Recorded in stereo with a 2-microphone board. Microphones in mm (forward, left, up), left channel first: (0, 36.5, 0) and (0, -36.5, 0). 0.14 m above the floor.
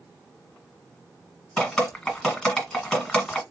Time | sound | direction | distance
1.6 | dripping | 5° left (ahead or behind) | 1.4 m